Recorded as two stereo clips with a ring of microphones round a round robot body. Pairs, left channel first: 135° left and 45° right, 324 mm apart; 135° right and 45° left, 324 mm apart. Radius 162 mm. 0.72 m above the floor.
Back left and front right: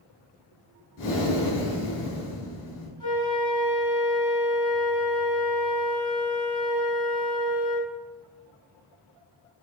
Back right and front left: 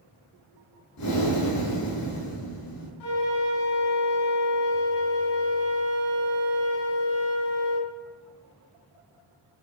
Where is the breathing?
175° right, 3.5 m.